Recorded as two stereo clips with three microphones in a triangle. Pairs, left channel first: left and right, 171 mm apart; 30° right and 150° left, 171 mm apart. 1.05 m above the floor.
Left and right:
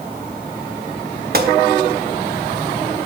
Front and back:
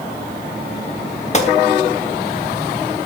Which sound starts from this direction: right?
A gunshot, at 1.3 s.